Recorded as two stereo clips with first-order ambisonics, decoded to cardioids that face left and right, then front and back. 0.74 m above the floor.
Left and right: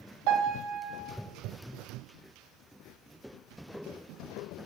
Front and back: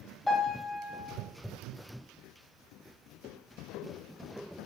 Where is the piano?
85° right, 1.9 m.